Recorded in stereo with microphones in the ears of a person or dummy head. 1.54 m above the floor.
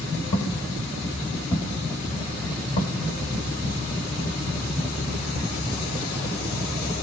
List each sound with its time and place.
0.3 s footsteps: 20° left (ahead or behind), 2.0 m; by 3.8 s 30° left (ahead or behind), 1.9 m